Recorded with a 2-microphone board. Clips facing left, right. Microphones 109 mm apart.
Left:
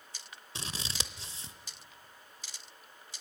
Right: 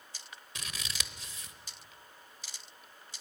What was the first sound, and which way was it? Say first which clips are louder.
Scissors: left 3 dB; 30° left (ahead or behind).